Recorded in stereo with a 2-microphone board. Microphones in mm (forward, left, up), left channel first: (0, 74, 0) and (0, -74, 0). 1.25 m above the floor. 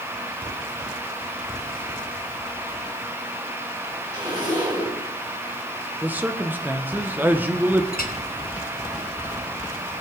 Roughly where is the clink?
Left.